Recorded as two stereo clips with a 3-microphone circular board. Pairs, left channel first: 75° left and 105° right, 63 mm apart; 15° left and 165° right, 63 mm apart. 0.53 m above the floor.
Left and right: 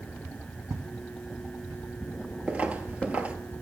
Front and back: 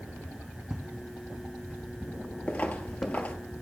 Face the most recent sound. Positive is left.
turn(degrees=-40)